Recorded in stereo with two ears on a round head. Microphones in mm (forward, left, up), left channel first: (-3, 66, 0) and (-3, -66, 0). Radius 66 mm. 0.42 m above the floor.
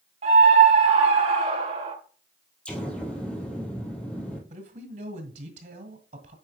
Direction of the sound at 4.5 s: 55° right (ahead or behind).